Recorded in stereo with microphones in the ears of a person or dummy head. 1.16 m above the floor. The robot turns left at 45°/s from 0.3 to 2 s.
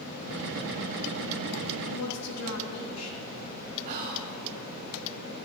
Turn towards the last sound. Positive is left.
turn(degrees=-40)  # may be behind; listen again after turning